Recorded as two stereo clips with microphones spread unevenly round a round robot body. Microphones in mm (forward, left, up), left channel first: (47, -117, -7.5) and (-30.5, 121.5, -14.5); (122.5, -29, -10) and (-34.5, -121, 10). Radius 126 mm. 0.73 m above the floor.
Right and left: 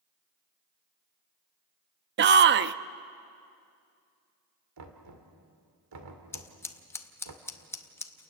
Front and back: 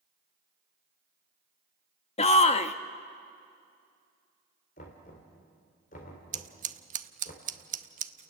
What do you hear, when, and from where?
2.2 s a shout: 75° left, 0.6 m
4.8 s knocking: 85° left, 2.5 m
6.3 s scissors: 150° right, 0.7 m